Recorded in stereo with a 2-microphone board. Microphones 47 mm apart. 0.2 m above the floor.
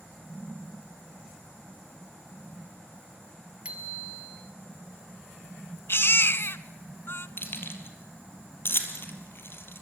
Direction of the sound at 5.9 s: 55° left (ahead or behind).